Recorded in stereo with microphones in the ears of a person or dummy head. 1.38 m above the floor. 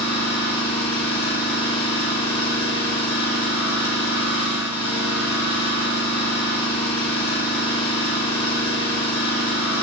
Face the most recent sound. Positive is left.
turn(degrees=30)  # may be behind; listen again after turning